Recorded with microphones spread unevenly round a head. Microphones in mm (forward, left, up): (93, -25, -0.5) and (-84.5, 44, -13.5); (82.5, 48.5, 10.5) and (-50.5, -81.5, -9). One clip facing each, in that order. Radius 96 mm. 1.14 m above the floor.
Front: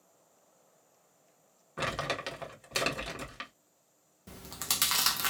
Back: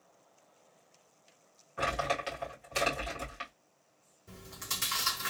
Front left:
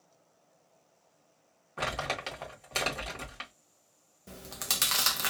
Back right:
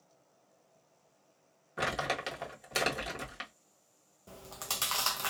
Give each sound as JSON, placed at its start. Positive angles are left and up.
{"t": 1.8, "sound": "crumpling", "azimuth_deg": -55, "distance_m": 1.6}
{"t": 4.3, "sound": "chewing", "azimuth_deg": -25, "distance_m": 0.7}